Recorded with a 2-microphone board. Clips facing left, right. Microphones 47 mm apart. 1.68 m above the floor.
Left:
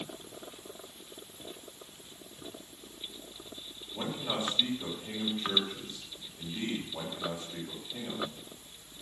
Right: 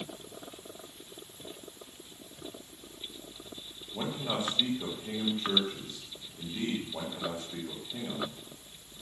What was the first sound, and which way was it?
A man speaking, 20° right (ahead or behind).